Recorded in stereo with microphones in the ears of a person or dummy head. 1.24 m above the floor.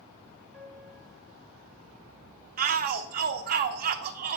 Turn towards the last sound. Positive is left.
turn(degrees=-50)  # may be behind; listen again after turning